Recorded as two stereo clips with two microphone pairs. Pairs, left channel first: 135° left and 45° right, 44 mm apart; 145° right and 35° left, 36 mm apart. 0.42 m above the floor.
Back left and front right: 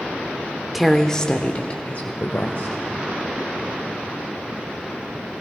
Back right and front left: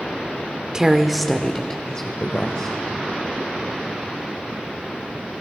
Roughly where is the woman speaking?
Ahead left.